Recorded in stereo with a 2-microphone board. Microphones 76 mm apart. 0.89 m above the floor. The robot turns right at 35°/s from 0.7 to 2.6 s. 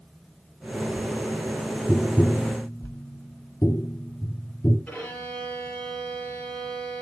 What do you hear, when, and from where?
1.9 s tapping: 10° left (ahead or behind), 1.1 m; by 4.8 s 35° left (ahead or behind), 1.1 m
4.9 s a violin: 20° left (ahead or behind), 5.5 m